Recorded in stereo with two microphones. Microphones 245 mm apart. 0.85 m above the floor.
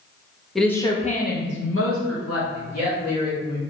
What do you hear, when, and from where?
0.6 s a woman speaking: centre (ahead or behind), 0.6 m; by 3.6 s 80° left, 1.5 m